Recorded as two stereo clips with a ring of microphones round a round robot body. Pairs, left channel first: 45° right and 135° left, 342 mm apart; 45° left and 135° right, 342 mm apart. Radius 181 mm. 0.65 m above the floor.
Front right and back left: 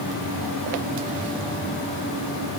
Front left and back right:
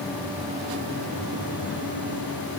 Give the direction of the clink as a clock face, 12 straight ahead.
No clink in this recording.